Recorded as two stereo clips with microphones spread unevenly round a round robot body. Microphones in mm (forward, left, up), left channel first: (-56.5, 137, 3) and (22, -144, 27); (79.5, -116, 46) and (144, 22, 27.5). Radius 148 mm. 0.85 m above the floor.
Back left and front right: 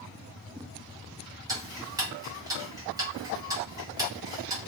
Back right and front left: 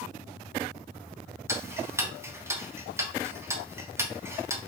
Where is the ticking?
5° left, 1.1 m.